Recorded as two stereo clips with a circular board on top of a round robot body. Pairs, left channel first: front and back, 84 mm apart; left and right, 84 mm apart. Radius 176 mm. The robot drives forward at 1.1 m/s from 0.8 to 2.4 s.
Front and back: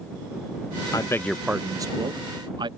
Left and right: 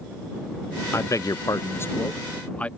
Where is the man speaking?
35° left; by 2.7 s 165° left.